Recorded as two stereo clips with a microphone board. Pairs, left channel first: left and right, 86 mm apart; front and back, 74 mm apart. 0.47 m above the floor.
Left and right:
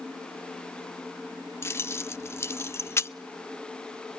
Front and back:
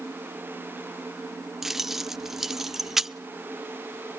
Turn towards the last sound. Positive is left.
turn(degrees=100)